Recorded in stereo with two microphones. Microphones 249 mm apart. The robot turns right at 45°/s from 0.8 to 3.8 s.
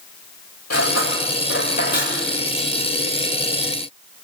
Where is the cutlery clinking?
85° left, 8.5 m; by 2.1 s 30° left (ahead or behind), 8.5 m.